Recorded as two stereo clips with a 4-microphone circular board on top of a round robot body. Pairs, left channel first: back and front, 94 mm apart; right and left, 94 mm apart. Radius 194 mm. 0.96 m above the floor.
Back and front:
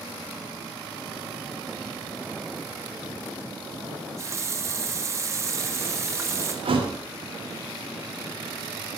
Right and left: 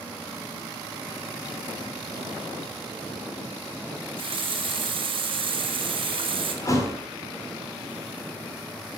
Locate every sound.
3.9 s a running tap: 60° left, 1.1 m
6.7 s a thud: 30° right, 1.6 m